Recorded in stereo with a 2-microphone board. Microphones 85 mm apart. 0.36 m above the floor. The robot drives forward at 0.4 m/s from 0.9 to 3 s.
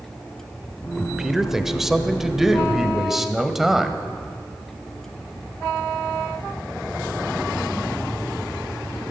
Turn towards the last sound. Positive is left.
turn(degrees=-5)  # may be behind; listen again after turning